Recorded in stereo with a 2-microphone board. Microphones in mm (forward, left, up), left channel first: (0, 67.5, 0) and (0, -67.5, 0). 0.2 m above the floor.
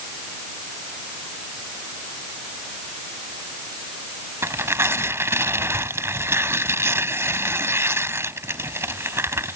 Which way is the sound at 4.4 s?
20° right (ahead or behind).